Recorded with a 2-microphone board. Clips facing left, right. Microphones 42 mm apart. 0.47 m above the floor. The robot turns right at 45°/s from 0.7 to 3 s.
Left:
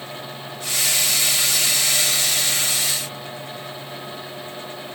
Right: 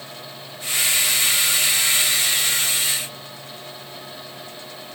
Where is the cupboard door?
I don't hear a cupboard door.